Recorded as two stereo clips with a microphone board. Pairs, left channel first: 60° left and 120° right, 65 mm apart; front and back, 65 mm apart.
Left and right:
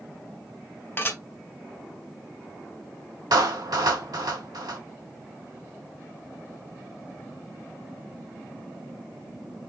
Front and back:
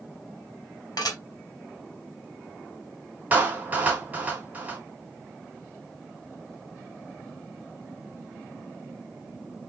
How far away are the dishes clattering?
About 2 m.